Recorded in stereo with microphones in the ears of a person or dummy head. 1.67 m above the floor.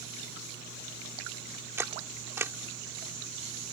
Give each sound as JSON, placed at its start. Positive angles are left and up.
{"t": 1.8, "sound": "a camera shutter", "side_deg": -15}